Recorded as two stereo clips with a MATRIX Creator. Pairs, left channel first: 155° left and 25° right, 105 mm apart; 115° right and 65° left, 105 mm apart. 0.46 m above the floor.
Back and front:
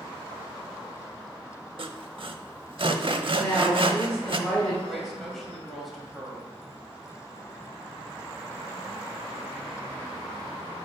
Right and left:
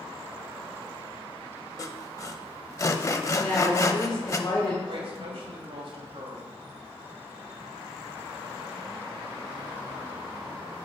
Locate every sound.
1.8 s sawing: 55° right, 0.5 m
3.4 s a woman speaking: 130° right, 1.6 m
4.9 s a woman speaking: 70° left, 2 m